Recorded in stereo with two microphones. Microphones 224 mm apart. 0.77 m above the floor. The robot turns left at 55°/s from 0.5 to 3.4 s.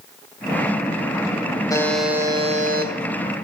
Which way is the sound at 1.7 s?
15° left.